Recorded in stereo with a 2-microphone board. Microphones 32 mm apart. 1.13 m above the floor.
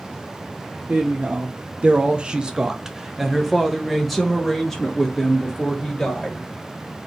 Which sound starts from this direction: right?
A woman speaking, at 0.9 s.